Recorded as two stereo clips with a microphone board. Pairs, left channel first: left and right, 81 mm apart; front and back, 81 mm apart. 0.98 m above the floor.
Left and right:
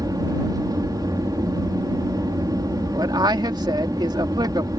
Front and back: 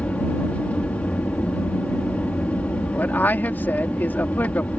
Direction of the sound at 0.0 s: 70° right.